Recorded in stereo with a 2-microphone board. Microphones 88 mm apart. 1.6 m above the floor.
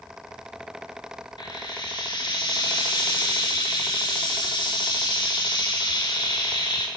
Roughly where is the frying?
Left.